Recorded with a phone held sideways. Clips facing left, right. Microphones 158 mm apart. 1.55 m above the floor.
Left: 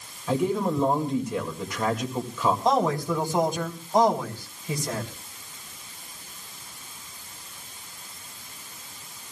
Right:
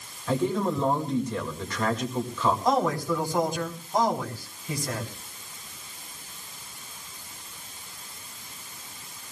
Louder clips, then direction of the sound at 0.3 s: Left 1 dB; 10° left (ahead or behind).